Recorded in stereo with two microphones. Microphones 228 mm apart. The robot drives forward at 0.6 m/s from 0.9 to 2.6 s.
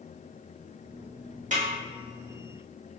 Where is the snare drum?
35° right (ahead or behind), 0.8 m.